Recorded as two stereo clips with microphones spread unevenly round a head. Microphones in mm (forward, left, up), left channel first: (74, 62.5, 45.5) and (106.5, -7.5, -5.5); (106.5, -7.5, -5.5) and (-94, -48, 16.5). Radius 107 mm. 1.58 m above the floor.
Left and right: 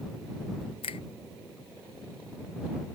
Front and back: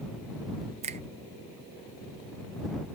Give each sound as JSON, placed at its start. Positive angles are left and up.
{"t": 0.8, "sound": "a finger snap", "azimuth_deg": 130}